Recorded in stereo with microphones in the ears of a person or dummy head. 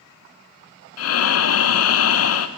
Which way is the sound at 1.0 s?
85° left.